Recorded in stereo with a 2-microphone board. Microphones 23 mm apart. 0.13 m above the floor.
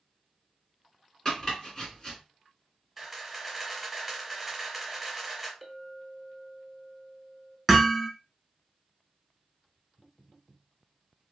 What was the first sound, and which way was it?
Chopping, 20° left (ahead or behind).